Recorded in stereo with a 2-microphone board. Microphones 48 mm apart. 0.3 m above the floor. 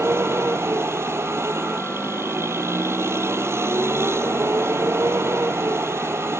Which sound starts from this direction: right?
A vehicle, at 0.0 s.